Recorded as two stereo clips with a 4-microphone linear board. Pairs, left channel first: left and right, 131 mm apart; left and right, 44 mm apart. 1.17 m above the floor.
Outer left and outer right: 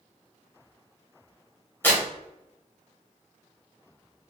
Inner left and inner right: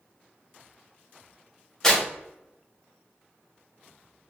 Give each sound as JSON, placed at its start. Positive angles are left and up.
{"t": 1.8, "sound": "tearing paper", "side_deg": 15, "distance_m": 1.0}